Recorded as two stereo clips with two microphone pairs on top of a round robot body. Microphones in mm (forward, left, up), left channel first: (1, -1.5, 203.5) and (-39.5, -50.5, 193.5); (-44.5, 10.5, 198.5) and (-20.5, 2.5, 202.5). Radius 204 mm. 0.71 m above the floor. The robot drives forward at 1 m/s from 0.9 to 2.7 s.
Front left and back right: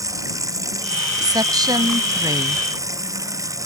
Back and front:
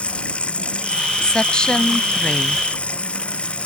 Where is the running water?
160° right.